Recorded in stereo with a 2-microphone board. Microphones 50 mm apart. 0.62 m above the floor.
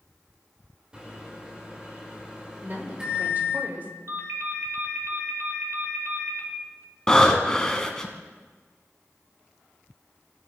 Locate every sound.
0.9 s a microwave: 20° right (ahead or behind), 2 m
2.6 s a woman speaking: 40° right (ahead or behind), 1.8 m
4.1 s a ringtone: 55° right (ahead or behind), 1.6 m
7.1 s breathing: 15° left (ahead or behind), 1.1 m